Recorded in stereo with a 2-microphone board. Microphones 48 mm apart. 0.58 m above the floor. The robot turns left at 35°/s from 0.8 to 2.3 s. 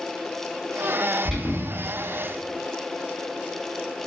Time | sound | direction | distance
1.2 | an alarm | centre (ahead or behind) | 0.9 m